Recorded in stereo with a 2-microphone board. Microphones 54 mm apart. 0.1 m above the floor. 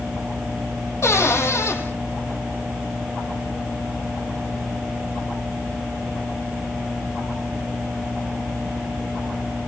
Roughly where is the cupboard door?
Left.